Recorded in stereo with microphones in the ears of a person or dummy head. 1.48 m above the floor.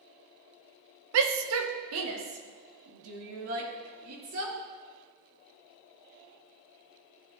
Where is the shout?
65° right (ahead or behind), 0.8 m; by 4.5 s 85° right, 3 m.